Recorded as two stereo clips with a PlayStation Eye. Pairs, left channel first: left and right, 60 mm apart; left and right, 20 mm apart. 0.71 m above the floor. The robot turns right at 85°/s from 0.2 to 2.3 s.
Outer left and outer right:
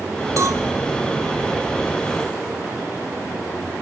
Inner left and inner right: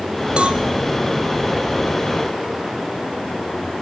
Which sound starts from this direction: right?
A cowbell, at 0.4 s.